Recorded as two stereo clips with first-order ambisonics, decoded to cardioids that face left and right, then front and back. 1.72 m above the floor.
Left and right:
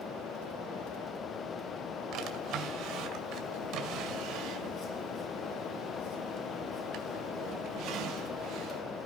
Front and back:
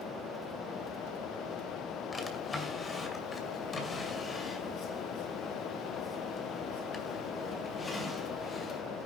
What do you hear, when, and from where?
2.1 s a drawer: 70° right, 2 m